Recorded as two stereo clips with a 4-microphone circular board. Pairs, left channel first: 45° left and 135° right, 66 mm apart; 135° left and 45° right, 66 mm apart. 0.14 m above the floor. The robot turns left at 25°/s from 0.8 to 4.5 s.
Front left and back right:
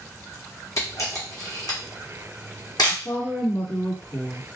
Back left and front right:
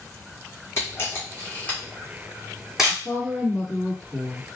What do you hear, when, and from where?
0.8 s a camera shutter: 90° left, 1.1 m; by 3.0 s 35° left, 1.1 m
2.9 s a woman speaking: 75° left, 1.8 m; by 4.4 s 35° left, 1.8 m